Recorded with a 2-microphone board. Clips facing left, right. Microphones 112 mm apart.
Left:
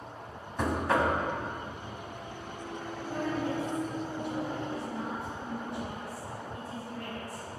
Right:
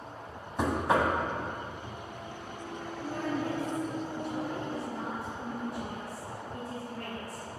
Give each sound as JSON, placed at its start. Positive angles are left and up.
{"t": 0.6, "sound": "knocking", "side_deg": -20, "distance_m": 0.9}
{"t": 3.0, "sound": "a woman speaking", "side_deg": -55, "distance_m": 2.0}